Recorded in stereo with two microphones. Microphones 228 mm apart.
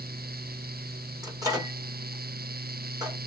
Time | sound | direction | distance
1.2 | a microwave | 15° right (ahead or behind) | 1.2 m